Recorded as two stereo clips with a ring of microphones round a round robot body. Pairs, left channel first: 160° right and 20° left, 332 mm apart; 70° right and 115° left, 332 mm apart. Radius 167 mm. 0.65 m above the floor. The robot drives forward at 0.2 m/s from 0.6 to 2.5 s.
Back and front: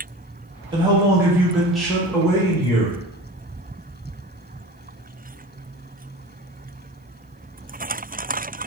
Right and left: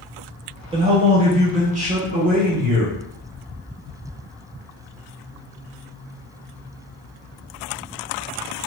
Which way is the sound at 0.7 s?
70° left.